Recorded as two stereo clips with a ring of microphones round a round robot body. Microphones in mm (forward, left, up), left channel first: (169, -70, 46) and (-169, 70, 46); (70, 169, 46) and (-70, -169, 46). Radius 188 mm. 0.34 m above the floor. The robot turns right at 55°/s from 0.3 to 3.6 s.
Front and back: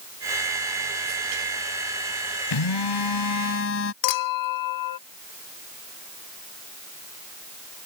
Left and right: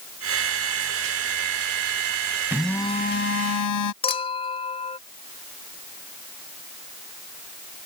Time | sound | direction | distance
2.5 | a phone buzzing | 30° right | ?
4.0 | a clink | 5° right | ?